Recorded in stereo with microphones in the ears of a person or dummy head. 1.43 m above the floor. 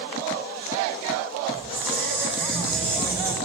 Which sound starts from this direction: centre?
A squeak, at 1.5 s.